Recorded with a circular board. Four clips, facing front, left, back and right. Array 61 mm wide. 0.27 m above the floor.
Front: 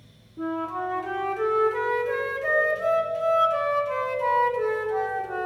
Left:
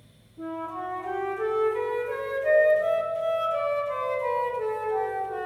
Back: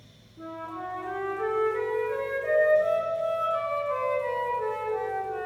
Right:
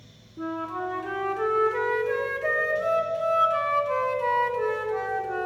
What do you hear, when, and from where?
0.4 s a flute: 55° right, 1.7 m